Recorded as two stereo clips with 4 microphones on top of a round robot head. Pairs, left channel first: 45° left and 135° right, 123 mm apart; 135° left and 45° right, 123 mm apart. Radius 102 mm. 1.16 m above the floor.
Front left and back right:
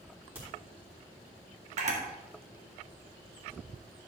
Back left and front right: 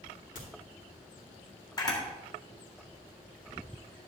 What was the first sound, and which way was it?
A crack, 150° left.